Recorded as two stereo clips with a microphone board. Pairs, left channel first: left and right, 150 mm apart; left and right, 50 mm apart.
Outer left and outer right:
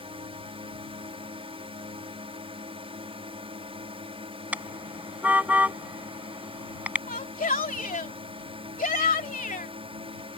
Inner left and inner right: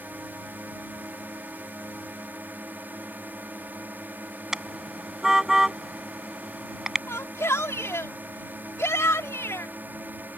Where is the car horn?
10° right (ahead or behind).